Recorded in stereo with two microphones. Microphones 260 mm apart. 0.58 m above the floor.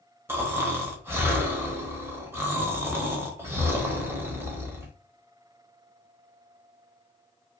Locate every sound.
0.3 s snoring: 10° right (ahead or behind), 0.7 m